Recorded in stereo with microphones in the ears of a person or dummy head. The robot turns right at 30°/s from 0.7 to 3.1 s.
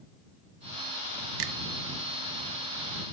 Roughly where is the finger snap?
Right.